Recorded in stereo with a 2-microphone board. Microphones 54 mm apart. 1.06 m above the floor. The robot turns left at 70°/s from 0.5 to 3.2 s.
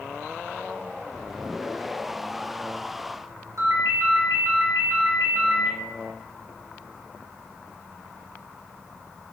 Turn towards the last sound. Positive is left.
turn(degrees=-60)  # may be behind; listen again after turning